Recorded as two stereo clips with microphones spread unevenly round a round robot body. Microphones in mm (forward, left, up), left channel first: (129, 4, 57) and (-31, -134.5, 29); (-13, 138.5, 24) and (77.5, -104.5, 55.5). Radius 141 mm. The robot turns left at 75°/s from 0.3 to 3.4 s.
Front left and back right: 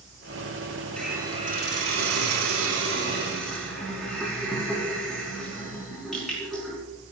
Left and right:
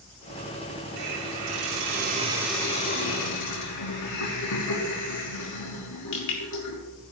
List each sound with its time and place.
1.0 s a hiss: 45° right, 5 m; by 6.8 s 130° left, 5 m